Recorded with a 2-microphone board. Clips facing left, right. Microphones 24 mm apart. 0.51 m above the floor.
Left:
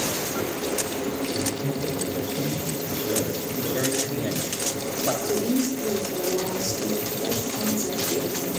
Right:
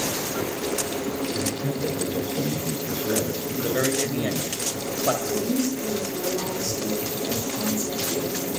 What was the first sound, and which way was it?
A man speaking, 80° right.